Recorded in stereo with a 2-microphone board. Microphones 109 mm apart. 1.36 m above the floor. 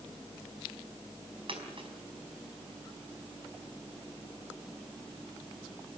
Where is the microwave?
I don't hear a microwave.